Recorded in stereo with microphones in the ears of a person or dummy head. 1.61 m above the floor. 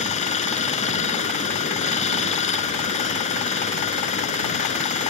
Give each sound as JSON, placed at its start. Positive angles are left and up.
{"t": 0.0, "sound": "running water", "side_deg": 35}